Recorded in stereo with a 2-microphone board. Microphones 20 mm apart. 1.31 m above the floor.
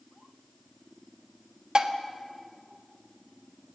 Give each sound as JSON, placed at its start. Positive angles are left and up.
{"t": 1.8, "sound": "dishes clattering", "side_deg": -40, "distance_m": 1.2}